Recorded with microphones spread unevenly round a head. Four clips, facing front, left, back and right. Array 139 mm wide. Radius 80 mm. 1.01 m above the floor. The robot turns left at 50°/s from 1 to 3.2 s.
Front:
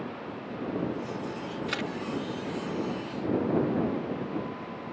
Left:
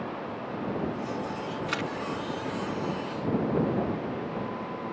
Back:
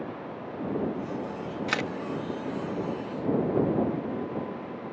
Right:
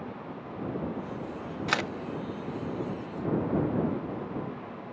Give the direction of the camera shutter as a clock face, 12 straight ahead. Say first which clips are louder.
Right 4 dB, back 4 dB; 4 o'clock.